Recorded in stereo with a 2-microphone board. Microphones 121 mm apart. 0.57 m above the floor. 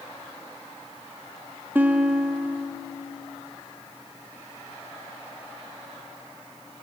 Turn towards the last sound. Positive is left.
turn(degrees=-15)  # may be behind; listen again after turning